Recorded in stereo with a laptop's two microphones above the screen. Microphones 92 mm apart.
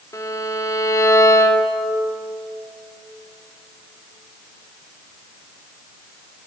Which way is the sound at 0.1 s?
40° left (ahead or behind).